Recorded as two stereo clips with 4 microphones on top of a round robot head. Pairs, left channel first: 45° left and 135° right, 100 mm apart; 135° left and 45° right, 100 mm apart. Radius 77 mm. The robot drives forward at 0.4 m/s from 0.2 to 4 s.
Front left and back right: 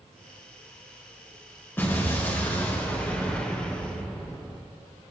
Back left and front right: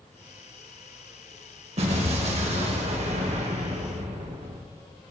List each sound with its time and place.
1.8 s an explosion: 25° right, 2.5 m; by 4.6 s 35° right, 1.9 m